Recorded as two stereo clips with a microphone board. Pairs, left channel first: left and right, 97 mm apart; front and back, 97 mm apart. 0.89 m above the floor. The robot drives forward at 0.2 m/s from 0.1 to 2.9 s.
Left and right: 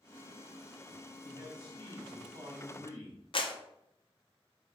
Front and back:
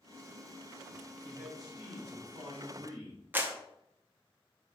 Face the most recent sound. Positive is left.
turn(degrees=110)